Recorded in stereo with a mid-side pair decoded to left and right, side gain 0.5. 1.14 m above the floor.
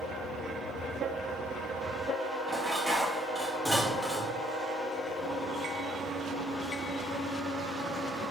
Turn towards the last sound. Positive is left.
turn(degrees=0)